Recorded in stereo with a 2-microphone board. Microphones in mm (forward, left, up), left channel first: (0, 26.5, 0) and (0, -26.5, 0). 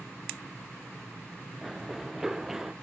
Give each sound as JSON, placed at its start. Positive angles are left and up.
{"t": 1.6, "sound": "running footsteps", "side_deg": 0}